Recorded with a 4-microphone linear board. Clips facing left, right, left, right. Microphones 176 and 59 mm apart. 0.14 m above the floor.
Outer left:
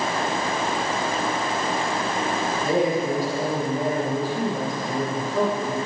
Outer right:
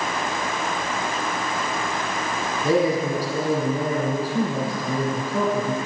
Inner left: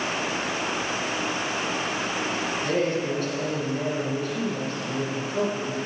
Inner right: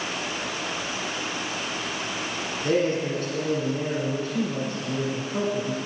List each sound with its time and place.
2.6 s a man speaking: 35° right (ahead or behind), 5.5 m